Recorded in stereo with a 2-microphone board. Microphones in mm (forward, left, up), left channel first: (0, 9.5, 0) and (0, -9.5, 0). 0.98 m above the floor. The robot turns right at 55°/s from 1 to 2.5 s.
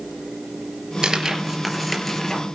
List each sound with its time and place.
1.0 s tearing paper: 45° right (ahead or behind), 3.5 m; by 2.4 s 30° left (ahead or behind), 3.5 m